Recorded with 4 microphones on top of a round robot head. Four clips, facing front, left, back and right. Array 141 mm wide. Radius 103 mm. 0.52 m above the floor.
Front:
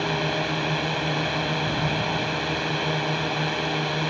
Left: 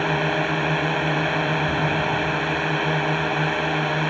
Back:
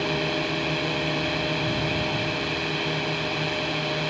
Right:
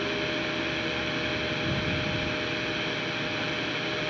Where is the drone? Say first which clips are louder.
Left 8 dB, front 1 dB; 70° left.